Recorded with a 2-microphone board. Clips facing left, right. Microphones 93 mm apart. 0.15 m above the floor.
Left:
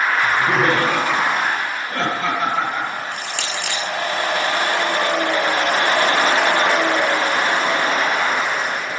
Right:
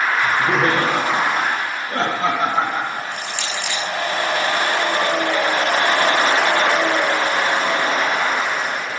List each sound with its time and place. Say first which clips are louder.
0.2 s laughter: even; 25° right (ahead or behind), 3.5 m; by 3.0 s 35° right (ahead or behind), 5.5 m
3.1 s crushing: even; 60° left (ahead or behind), 2.5 m